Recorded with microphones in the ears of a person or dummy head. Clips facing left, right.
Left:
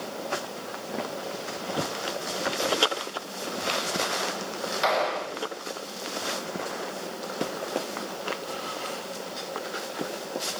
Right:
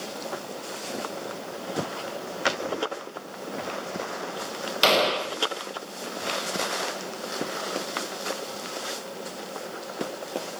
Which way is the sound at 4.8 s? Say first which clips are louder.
Right 4 dB; 45° right (ahead or behind).